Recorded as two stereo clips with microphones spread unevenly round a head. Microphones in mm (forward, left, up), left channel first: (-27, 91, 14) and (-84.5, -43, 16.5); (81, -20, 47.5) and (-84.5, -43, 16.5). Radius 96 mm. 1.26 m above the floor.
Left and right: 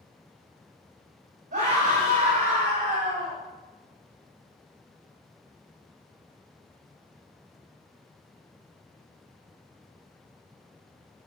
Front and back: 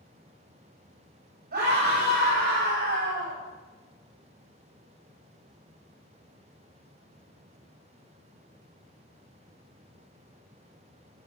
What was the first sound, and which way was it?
A scream, 145° right.